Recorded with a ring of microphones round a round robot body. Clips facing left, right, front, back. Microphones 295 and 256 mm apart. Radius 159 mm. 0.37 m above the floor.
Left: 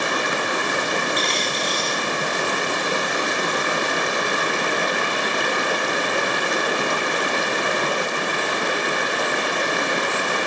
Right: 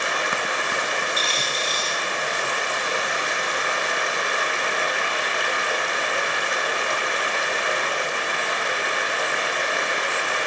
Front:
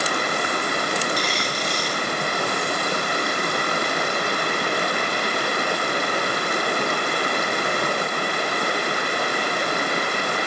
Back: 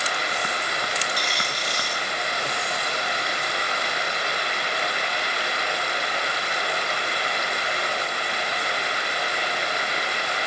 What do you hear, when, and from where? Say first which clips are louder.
0.0 s running water: left 4 dB, front 6 dB; 40° left, 1.3 m
1.2 s a dropped coin: left 4 dB, front 6 dB; 5° right, 4.5 m